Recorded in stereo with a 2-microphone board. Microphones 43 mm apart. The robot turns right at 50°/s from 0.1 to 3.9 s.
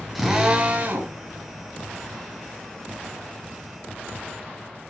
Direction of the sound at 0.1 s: Straight behind.